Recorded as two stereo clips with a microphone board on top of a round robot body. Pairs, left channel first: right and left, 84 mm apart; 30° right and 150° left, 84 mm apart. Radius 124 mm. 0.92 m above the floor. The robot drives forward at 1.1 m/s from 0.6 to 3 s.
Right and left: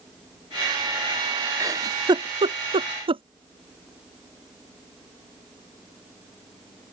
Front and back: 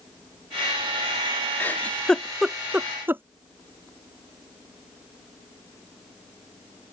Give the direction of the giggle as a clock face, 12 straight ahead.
11 o'clock.